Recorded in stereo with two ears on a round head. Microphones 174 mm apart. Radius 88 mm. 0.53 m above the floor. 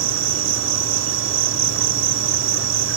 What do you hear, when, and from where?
0.0 s an insect: 70° right (ahead or behind)